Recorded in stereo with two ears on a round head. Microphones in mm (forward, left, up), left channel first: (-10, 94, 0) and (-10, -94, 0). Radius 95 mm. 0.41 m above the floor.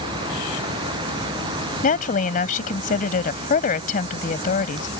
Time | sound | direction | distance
1.8 | a woman speaking | 40° left (ahead or behind) | ?